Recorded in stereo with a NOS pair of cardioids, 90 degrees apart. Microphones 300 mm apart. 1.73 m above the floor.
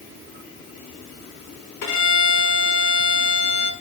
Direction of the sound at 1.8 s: 65° left.